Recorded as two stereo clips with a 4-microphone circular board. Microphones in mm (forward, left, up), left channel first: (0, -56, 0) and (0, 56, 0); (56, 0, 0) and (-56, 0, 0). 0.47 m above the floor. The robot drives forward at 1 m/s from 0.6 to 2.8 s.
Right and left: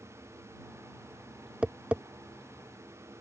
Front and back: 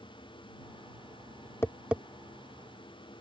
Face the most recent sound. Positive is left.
turn(degrees=175)